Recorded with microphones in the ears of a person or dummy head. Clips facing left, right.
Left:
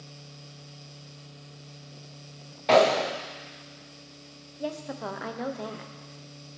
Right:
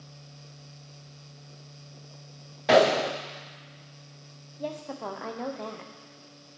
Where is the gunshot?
10° right (ahead or behind), 0.5 m.